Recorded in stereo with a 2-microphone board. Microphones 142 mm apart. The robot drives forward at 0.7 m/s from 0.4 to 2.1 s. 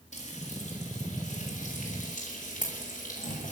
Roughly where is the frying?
Left.